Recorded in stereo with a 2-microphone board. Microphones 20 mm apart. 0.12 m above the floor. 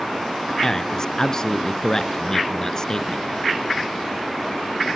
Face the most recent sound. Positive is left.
turn(degrees=30)  # may be behind; listen again after turning